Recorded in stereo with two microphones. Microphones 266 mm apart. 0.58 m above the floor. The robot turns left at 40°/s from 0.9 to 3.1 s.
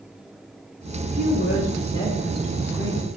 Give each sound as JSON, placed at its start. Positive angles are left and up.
{"t": 1.0, "sound": "a woman speaking", "azimuth_deg": 55, "distance_m": 3.5}